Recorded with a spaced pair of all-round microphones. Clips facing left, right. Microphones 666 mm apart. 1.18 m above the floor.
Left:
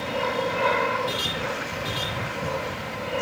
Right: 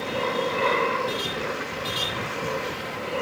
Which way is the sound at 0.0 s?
20° left (ahead or behind).